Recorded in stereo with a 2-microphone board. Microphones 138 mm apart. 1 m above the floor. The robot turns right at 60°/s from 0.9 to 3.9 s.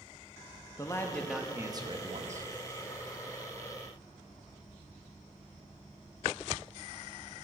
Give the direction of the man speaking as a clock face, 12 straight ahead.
7 o'clock.